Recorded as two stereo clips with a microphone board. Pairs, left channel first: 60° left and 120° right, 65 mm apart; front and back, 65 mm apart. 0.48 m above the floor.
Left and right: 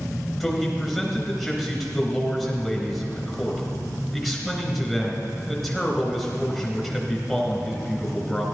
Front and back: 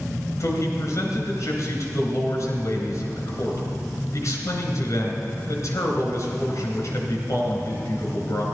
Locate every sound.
0.4 s a man speaking: 30° right, 3 m